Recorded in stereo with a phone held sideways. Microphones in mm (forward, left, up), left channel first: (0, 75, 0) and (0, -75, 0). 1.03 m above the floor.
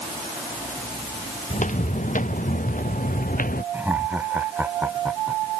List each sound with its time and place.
1.5 s footsteps: 55° left (ahead or behind); by 3.6 s 70° left (ahead or behind)
3.7 s laughter: 10° right (ahead or behind)